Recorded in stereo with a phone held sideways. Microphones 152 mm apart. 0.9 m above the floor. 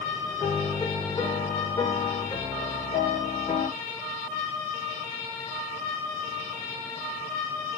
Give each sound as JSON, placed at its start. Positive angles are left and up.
{"t": 0.4, "sound": "a piano", "side_deg": 30, "distance_m": 1.6}